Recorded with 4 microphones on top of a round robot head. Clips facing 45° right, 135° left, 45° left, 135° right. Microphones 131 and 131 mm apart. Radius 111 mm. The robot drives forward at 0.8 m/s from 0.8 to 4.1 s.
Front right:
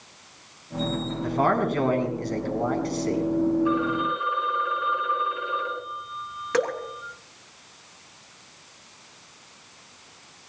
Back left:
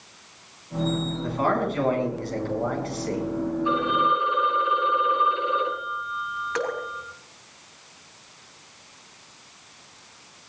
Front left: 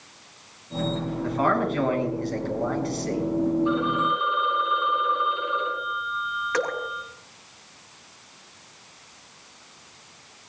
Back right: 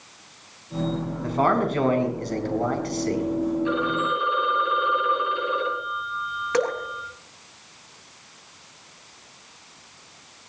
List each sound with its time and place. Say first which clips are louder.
1.2 s a man speaking: front right 2 dB, back right 2 dB; 80° right, 6 m; by 3.3 s 100° right, 6 m
3.6 s a phone ringing: back left 1 dB, front left 1 dB; 160° right, 9.5 m
6.5 s dripping: front right 4 dB, back right 4 dB; 70° right, 3 m